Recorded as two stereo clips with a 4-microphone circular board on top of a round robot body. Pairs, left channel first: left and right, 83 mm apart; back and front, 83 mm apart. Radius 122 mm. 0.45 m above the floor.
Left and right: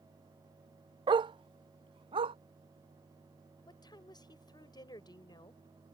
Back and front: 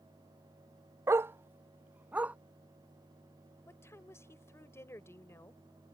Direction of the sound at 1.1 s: 60° right.